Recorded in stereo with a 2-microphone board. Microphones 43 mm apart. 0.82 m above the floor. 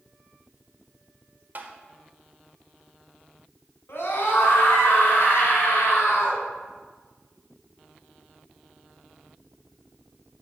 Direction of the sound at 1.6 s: 45° right (ahead or behind).